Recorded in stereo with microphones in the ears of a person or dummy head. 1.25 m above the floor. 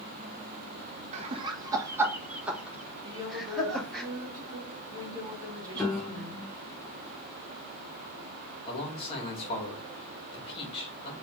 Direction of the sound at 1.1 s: 35° right (ahead or behind).